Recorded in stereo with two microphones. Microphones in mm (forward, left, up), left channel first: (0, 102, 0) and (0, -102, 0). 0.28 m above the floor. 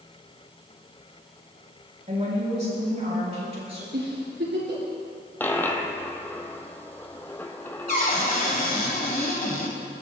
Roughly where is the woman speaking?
Right.